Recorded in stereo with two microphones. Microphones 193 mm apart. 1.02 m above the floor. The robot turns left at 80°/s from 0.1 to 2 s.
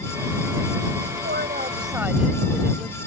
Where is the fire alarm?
No fire alarm in this recording.